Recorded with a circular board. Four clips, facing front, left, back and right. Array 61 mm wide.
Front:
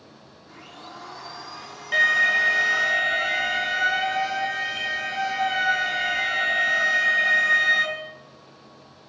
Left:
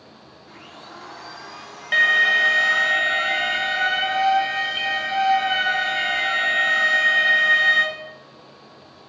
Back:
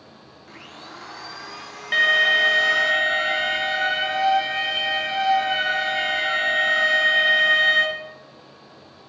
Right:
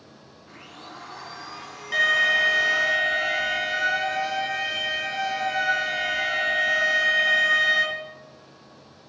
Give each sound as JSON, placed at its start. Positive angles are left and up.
{"t": 0.5, "sound": "a blender", "azimuth_deg": 180, "distance_m": 2.5}
{"t": 1.9, "sound": "an alarm", "azimuth_deg": 120, "distance_m": 1.7}